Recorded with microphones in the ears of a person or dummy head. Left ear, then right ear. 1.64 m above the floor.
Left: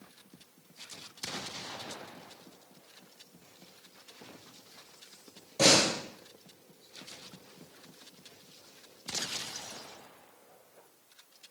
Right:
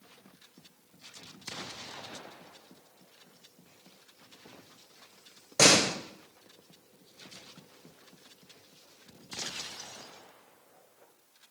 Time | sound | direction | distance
5.6 | a door slam | 60° right (ahead or behind) | 0.8 m